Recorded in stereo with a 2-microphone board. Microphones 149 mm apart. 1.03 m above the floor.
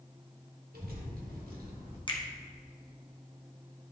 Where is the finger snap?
35° left (ahead or behind), 1.0 m.